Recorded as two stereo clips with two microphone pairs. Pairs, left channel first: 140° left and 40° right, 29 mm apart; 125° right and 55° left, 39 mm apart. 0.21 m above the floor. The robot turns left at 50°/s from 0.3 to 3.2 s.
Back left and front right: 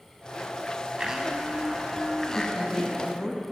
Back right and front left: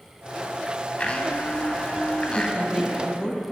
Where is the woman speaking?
105° right, 1.0 m; by 3.4 s 145° right, 1.0 m.